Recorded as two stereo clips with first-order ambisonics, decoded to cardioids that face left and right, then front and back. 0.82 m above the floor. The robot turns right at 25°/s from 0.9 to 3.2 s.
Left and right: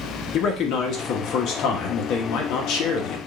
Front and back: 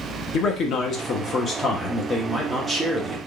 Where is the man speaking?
50° left, 0.9 m; by 3.2 s 105° left, 0.9 m.